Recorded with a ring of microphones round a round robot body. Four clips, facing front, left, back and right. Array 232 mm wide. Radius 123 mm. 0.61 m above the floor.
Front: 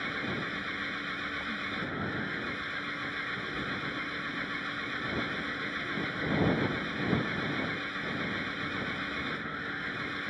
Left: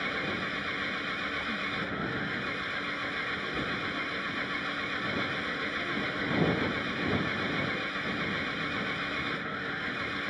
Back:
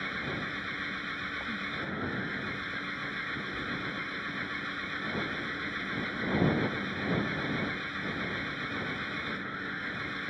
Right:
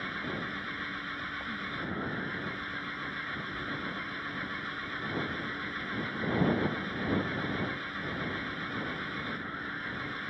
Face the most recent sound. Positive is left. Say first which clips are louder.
# left 3 dB, front 1 dB
turn(degrees=95)